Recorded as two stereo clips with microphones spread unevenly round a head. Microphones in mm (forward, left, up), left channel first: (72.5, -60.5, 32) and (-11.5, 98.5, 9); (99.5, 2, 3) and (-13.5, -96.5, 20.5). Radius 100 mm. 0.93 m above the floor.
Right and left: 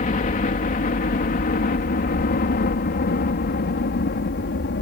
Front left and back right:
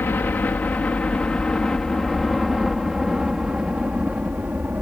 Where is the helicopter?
30° right; by 4.8 s 65° right.